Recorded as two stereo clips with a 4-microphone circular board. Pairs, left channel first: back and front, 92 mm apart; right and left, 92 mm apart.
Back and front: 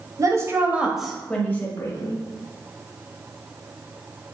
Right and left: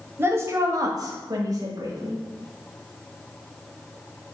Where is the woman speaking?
35° left, 1.7 m; by 2.2 s 130° left, 2.5 m.